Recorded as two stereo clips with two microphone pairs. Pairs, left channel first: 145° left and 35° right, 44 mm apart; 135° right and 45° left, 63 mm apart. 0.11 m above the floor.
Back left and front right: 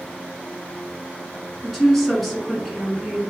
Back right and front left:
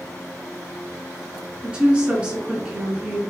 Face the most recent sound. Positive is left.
turn(degrees=65)